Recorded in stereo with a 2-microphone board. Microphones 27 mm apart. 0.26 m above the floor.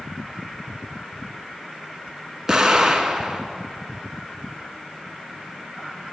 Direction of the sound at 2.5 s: 10° right (ahead or behind).